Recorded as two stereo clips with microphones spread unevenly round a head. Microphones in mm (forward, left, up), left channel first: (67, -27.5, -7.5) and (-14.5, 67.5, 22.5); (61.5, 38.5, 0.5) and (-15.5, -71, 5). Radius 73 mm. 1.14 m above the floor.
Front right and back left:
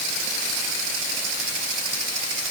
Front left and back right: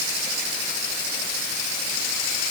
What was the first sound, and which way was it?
Only background noise.